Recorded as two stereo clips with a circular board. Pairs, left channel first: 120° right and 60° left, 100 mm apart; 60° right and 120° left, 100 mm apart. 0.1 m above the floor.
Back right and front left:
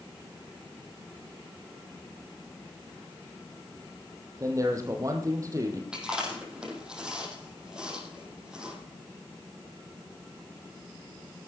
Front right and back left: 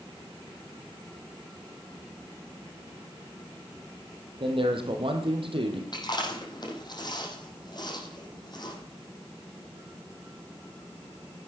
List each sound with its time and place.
4.4 s a man speaking: 110° left, 3 m
5.9 s chewing: 20° right, 4.5 m